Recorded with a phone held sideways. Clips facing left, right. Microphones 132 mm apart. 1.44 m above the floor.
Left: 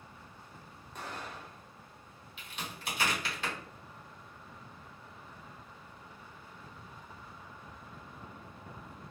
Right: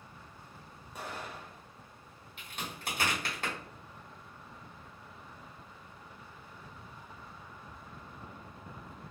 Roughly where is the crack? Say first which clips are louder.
Right 1 dB; right.